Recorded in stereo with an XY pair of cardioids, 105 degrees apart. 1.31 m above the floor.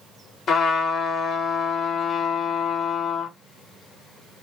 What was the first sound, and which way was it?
A trumpet, 55° left.